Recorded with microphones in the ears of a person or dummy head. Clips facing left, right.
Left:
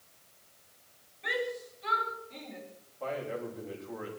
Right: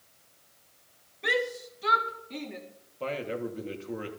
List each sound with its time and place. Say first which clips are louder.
1.2 s a shout: right 4 dB; 65° right (ahead or behind), 2.5 m
3.0 s a man speaking: right 3 dB; 45° right (ahead or behind), 3 m